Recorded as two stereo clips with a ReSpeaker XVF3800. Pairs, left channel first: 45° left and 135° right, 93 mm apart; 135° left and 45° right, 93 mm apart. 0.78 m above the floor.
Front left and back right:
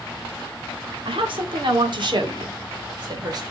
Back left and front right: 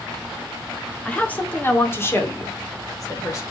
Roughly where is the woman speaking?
Behind right.